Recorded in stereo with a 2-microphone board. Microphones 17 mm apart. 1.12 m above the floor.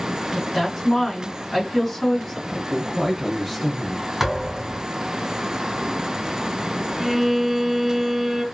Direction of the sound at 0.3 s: 10° left (ahead or behind).